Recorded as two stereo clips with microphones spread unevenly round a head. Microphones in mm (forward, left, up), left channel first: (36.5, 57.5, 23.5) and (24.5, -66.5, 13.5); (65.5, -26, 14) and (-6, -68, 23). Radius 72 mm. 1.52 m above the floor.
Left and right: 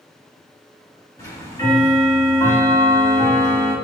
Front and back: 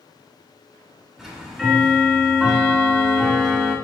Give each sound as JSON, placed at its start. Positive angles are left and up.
{"t": 1.2, "sound": "ticking", "azimuth_deg": 125, "distance_m": 1.6}